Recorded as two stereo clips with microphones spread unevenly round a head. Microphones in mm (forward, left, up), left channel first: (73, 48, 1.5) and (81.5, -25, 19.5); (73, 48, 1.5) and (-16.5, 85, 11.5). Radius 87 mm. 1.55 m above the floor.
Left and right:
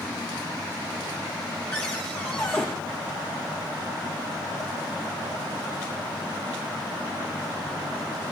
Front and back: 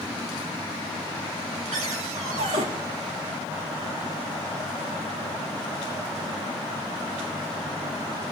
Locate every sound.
1.7 s a cupboard door: straight behind, 2.5 m